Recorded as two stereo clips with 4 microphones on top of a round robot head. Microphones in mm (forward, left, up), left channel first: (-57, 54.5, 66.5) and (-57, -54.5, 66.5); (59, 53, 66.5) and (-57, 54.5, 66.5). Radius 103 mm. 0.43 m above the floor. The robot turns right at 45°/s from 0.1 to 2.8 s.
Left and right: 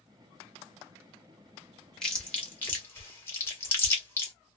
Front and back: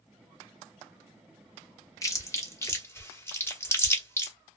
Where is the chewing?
10° left, 1.2 m; by 4.3 s 45° left, 1.2 m.